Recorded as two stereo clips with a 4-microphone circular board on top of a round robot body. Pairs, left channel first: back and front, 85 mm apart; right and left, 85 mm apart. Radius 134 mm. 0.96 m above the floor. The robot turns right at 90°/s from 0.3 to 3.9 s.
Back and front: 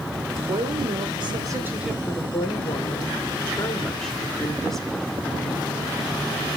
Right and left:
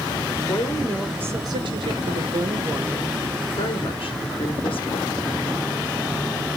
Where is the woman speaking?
40° right, 3 m; by 5.2 s 95° right, 3 m.